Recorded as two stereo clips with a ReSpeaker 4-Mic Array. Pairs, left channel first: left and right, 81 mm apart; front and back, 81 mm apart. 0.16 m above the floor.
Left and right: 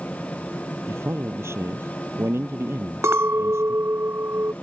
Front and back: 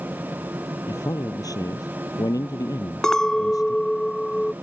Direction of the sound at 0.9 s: 35° right.